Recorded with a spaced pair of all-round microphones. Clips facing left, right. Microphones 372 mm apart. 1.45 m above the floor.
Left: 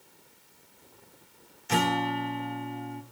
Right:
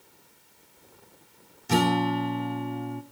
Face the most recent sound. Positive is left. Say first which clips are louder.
# right 5 dB
turn(degrees=-55)  # may be behind; listen again after turning